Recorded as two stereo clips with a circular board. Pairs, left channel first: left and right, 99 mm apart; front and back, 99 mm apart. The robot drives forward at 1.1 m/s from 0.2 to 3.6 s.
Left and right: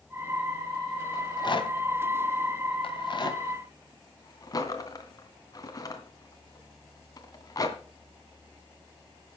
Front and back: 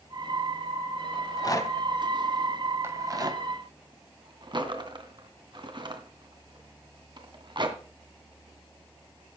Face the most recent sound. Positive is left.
turn(degrees=140)